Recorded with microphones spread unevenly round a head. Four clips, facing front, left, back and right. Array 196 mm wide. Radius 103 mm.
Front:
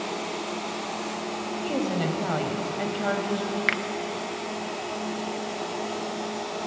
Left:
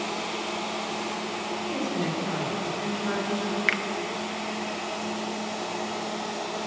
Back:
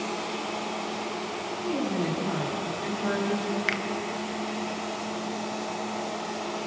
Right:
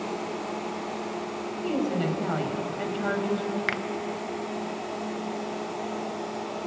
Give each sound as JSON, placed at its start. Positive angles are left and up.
{"t": 1.6, "sound": "a woman speaking", "azimuth_deg": -10, "distance_m": 5.0}
{"t": 3.7, "sound": "a finger snap", "azimuth_deg": -75, "distance_m": 0.7}